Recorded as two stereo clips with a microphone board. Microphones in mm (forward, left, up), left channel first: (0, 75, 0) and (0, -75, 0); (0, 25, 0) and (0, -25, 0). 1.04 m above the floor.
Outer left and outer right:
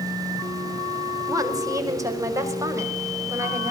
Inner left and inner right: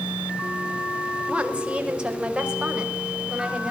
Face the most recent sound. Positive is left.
turn(degrees=-15)  # may be behind; listen again after turning